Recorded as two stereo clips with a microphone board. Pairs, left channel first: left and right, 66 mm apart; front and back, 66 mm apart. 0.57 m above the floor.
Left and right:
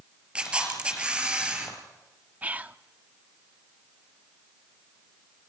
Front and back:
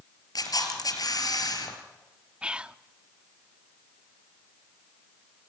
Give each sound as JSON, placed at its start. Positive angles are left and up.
{"t": 0.3, "sound": "a camera shutter", "azimuth_deg": -20, "distance_m": 4.0}
{"t": 2.4, "sound": "whispering", "azimuth_deg": -125, "distance_m": 0.6}